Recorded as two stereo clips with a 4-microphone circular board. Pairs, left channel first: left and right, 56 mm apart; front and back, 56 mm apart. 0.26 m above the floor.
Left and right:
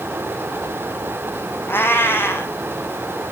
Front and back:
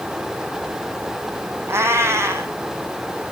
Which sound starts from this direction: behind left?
A cat meowing, at 1.7 s.